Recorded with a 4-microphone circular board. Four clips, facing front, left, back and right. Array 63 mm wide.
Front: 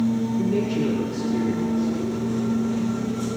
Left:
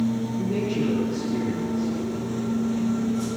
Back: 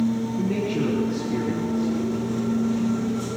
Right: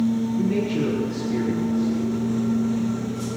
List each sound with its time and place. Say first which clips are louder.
0.4 s a man speaking: right 2 dB, front 2 dB; 160° right, 3.5 m